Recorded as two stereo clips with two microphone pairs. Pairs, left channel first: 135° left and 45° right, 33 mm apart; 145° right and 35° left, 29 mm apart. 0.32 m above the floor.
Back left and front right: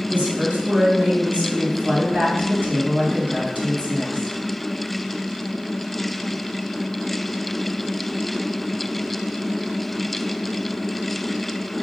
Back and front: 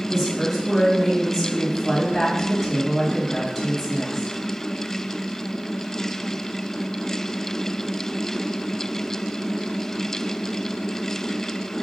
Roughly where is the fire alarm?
No fire alarm in this recording.